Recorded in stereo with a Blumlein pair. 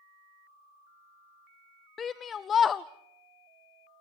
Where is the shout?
20° left, 0.5 m.